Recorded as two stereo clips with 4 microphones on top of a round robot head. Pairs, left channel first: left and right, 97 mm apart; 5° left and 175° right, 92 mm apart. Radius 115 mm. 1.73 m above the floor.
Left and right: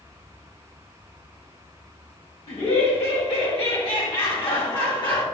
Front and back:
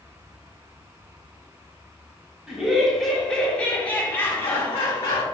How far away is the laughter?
About 1.3 m.